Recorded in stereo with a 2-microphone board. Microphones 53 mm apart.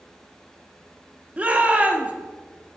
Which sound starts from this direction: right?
A shout, at 1.4 s.